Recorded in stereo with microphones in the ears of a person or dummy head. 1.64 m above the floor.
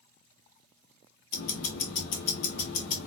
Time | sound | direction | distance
1.3 | ticking | 45° left (ahead or behind) | 0.7 m